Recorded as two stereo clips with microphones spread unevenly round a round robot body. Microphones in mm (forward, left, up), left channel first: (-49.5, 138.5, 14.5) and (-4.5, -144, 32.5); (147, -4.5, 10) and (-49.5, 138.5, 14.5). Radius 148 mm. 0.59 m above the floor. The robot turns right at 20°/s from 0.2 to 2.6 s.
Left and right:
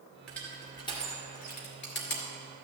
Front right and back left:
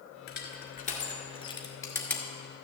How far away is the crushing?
About 1.9 m.